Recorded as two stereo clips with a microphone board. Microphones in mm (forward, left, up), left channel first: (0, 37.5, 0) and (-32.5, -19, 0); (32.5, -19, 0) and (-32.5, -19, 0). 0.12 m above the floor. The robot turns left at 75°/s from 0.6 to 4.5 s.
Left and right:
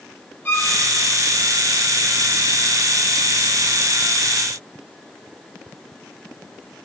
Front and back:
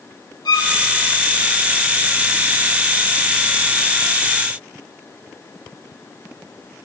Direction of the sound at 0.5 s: Straight ahead.